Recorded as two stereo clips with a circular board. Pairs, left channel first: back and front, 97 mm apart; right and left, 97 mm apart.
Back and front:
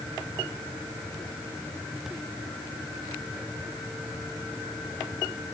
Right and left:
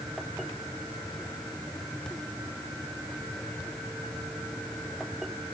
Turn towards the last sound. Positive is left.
No sound to turn to.